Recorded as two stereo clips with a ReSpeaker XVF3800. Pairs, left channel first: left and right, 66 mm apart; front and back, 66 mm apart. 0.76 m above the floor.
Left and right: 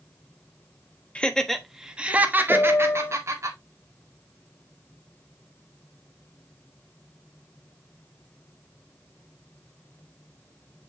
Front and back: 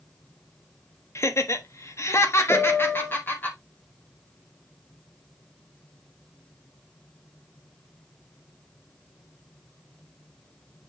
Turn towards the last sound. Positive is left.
turn(degrees=70)